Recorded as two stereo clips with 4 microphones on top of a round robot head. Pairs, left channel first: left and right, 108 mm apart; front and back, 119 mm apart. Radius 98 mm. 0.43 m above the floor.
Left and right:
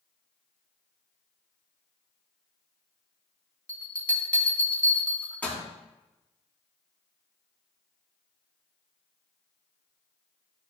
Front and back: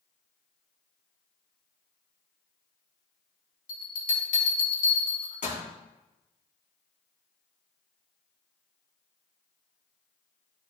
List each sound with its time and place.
3.7 s a bell: 10° left, 3 m